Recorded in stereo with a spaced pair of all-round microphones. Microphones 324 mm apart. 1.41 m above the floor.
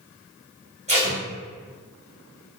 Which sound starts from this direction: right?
Tape being pulled, at 0.9 s.